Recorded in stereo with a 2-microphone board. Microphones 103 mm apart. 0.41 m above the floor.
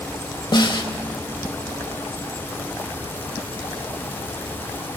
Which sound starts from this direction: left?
A snare drum, at 0.5 s.